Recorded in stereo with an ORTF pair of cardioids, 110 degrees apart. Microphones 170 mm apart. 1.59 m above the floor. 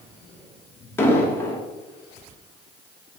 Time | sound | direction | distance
1.0 | an explosion | 15° left | 1.0 m